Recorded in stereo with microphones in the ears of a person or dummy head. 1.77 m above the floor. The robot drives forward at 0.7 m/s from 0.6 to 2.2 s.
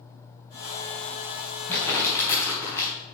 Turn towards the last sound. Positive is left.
turn(degrees=20)  # may be behind; listen again after turning